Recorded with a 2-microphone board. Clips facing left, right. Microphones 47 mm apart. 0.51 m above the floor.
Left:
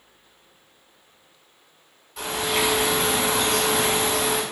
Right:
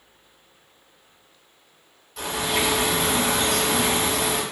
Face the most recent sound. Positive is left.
turn(degrees=10)  # may be behind; listen again after turning